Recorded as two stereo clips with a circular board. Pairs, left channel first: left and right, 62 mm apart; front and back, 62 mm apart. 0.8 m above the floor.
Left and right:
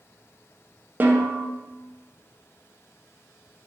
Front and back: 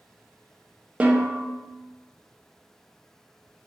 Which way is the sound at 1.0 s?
125° right.